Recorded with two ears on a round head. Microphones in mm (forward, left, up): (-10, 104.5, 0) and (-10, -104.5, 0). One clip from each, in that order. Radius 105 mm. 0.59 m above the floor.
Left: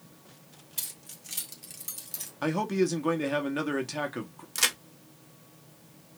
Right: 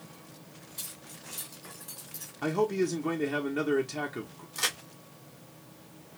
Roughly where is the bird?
No bird in this recording.